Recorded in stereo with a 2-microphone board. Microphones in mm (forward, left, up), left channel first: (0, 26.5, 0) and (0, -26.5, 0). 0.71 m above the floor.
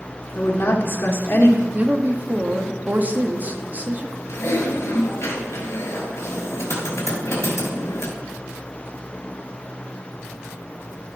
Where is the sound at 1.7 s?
35° right (ahead or behind), 1.2 m.